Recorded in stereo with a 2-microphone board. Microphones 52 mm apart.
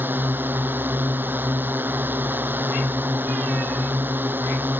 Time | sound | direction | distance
0.0 | a drone | 40° right (ahead or behind) | ?